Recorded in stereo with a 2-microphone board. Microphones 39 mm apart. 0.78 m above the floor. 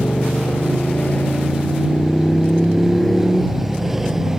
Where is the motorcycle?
50° left (ahead or behind); by 4.4 s 10° right (ahead or behind).